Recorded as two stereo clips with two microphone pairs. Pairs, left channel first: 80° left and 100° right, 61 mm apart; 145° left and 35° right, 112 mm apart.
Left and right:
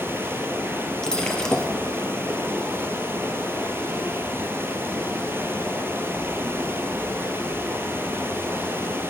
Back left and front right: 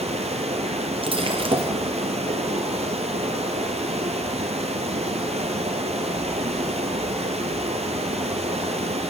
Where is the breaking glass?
Straight ahead, 1.6 m.